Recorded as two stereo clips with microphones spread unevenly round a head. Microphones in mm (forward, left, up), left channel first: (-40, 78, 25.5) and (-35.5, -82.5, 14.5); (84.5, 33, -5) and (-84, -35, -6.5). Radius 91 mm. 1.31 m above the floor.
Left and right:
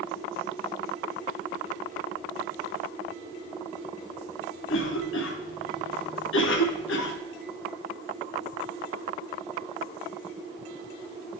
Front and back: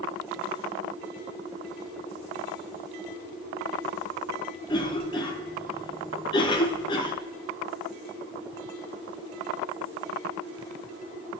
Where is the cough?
90° left, 0.7 m.